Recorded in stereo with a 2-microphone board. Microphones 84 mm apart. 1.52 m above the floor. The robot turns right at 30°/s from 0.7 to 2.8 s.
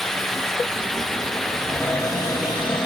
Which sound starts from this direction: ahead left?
A cupboard door, at 1.6 s.